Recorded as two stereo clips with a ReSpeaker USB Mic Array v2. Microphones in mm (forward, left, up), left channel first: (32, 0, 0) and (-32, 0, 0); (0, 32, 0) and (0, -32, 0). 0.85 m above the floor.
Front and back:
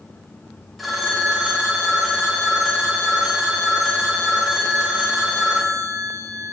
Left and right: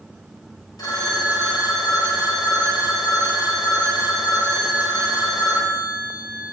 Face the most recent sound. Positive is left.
turn(degrees=90)